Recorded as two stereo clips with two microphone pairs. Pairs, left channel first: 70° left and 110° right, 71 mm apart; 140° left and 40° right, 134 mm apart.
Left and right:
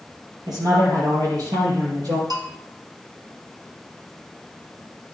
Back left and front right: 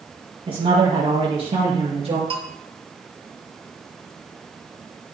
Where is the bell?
90° right, 1.9 m.